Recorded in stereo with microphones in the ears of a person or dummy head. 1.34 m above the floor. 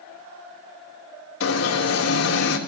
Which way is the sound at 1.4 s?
80° left.